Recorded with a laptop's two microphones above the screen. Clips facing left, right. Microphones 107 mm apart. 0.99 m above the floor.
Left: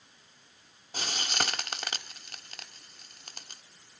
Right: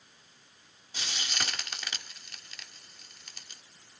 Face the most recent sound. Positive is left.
turn(degrees=45)  # may be behind; listen again after turning